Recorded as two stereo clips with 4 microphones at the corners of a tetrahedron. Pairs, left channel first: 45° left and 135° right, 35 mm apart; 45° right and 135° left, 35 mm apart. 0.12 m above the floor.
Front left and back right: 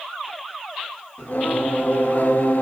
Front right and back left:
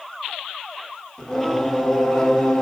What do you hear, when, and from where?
1.2 s singing: 30° left, 0.7 m